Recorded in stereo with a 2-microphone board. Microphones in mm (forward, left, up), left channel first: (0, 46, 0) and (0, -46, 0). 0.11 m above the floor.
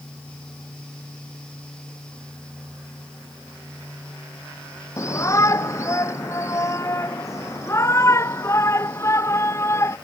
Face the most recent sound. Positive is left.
turn(degrees=30)  # may be behind; listen again after turning